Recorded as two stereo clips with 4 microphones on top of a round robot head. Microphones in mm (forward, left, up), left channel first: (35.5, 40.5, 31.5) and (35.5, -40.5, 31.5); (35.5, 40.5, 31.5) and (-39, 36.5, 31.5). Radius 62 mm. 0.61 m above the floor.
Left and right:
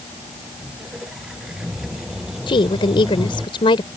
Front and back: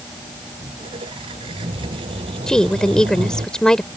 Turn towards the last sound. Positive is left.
turn(degrees=85)